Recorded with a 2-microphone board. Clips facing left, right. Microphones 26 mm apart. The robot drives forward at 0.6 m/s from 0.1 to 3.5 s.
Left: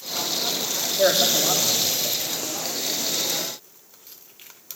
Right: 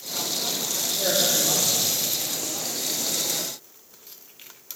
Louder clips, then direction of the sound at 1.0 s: Left 4 dB; 60° left (ahead or behind).